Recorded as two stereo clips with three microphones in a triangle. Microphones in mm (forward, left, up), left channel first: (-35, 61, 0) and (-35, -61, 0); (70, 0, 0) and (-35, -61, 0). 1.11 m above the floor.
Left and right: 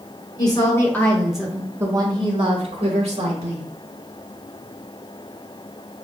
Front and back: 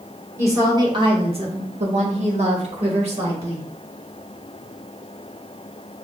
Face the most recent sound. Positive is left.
turn(degrees=-115)